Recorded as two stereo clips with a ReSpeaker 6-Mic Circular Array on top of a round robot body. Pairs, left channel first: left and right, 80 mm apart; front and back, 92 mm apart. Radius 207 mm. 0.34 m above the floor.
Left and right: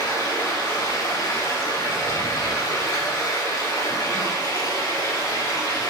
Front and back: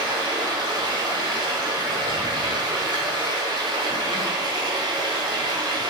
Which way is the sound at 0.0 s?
140° left.